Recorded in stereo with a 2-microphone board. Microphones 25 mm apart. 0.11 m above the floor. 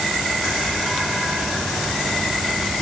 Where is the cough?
I don't hear a cough.